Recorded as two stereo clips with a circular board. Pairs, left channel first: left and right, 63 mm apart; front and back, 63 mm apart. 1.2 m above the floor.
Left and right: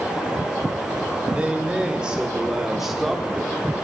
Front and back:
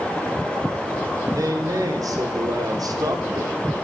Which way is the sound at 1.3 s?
160° right.